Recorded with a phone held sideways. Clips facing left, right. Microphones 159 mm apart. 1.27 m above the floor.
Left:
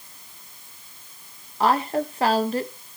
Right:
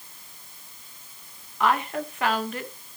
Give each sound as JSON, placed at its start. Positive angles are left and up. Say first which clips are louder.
{"t": 1.6, "sound": "a woman speaking", "louder": "left 3 dB", "side_deg": 35, "distance_m": 1.2}